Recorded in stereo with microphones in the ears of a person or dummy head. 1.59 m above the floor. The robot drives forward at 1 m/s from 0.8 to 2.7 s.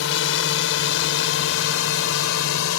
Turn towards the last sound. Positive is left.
turn(degrees=80)